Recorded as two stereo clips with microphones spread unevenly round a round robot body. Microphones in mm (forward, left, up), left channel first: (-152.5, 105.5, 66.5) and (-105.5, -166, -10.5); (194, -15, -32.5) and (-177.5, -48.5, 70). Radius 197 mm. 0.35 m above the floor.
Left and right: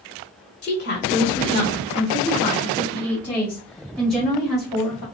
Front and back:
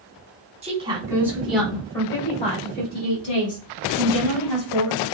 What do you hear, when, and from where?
0.6 s a woman speaking: 105° left, 1.4 m; by 5.0 s 5° right, 2.5 m